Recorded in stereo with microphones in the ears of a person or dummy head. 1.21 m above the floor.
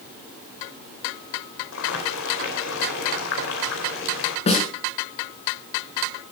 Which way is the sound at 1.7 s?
85° left.